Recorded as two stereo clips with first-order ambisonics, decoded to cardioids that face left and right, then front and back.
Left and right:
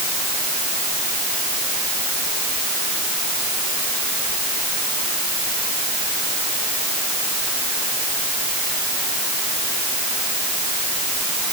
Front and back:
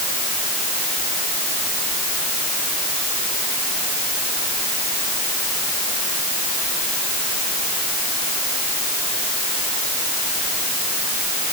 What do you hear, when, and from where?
Only background noise.